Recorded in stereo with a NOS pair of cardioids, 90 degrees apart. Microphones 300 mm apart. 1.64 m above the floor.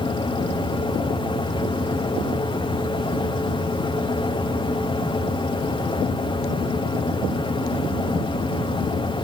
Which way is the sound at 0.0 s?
15° left.